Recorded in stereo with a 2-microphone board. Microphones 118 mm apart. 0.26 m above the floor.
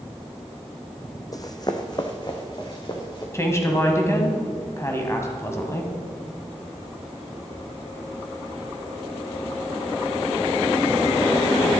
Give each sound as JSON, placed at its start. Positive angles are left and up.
{"t": 1.3, "sound": "running footsteps", "side_deg": 30, "distance_m": 0.8}
{"t": 3.3, "sound": "a woman speaking", "side_deg": 25, "distance_m": 1.6}